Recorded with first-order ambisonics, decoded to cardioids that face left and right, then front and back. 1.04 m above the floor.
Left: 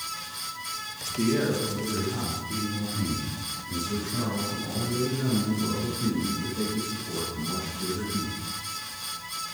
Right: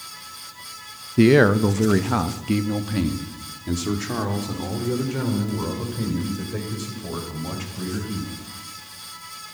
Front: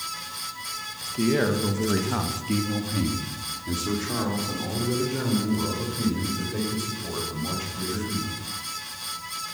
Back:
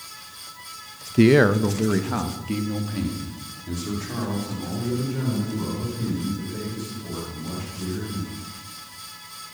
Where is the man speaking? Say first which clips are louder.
Right 11 dB, back 7 dB; 135° right, 0.6 m; by 8.3 s 70° right, 5.5 m.